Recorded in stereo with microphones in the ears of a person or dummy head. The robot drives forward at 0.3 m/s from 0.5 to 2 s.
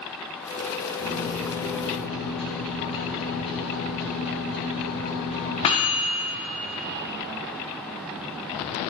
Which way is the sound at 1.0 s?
40° left (ahead or behind).